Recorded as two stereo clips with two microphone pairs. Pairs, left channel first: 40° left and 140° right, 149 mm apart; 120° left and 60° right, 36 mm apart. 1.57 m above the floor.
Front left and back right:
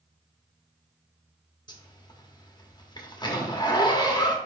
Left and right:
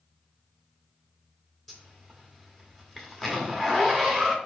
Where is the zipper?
45° left, 1.1 m.